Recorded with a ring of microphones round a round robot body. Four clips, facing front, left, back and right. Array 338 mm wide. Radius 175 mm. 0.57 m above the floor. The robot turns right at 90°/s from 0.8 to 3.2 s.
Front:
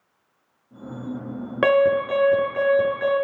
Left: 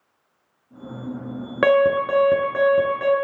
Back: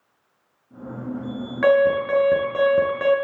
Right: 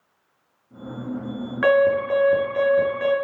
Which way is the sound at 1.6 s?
55° left.